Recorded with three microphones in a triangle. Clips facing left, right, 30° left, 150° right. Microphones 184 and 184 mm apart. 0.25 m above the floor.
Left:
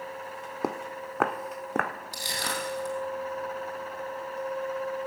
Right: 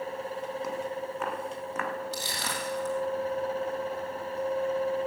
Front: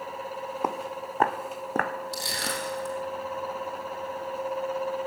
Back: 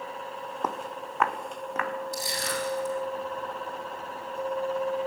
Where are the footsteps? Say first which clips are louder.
Even, front 1 dB; 110° left, 0.8 m; by 1.9 s 60° left, 1.1 m.